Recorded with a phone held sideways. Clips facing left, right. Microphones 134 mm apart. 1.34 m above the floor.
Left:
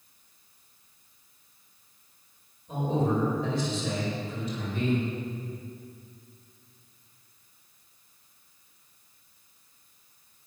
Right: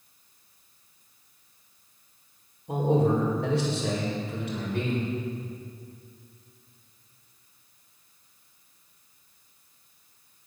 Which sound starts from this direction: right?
A man speaking, at 2.7 s.